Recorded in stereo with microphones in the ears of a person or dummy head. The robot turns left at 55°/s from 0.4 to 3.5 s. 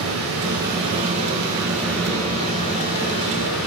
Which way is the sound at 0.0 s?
95° right.